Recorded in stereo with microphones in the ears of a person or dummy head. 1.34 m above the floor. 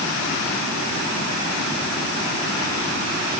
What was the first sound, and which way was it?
Only background noise.